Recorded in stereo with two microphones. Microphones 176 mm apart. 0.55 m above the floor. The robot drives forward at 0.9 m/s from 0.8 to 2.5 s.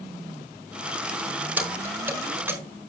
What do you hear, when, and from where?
1.6 s keys jangling: 10° right (ahead or behind), 4.5 m